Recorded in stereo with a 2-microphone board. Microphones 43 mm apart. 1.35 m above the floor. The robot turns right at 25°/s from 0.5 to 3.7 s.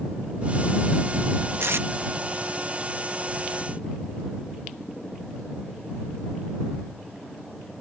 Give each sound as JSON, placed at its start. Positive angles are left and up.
{"t": 1.6, "sound": "tape being pulled", "side_deg": -70}